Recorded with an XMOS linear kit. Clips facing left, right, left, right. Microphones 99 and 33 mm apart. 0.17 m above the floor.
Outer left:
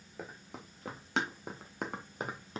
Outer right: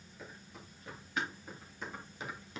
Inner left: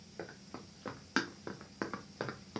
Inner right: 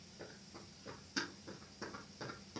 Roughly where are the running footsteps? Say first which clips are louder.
Outer left 5 dB, inner left 7 dB; left.